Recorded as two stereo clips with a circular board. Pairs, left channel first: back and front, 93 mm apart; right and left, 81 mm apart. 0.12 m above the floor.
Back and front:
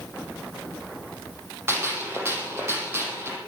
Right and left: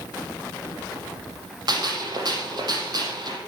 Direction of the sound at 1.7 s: 60° left.